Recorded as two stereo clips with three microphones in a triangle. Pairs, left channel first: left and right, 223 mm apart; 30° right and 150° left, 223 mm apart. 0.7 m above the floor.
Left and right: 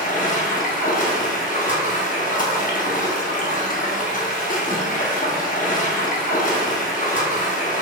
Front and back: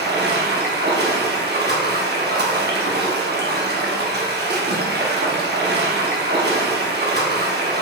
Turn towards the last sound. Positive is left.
turn(degrees=130)